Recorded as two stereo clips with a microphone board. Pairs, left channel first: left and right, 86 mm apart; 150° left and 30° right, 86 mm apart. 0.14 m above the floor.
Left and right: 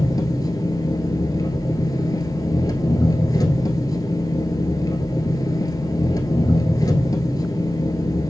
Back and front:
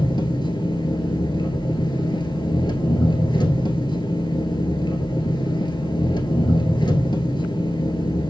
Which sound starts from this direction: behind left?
An engine running, at 0.0 s.